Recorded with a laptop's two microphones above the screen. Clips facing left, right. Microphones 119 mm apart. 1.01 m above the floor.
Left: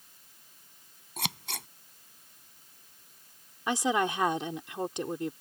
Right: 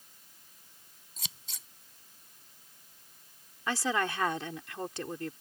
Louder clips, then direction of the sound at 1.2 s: Left 15 dB; 70° left (ahead or behind).